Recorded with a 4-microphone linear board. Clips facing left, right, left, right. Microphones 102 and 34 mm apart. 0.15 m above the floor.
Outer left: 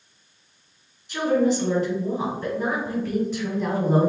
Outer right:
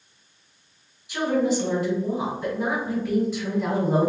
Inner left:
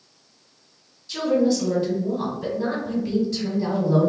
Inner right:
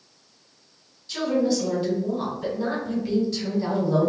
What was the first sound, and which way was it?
A woman speaking, 10° right (ahead or behind).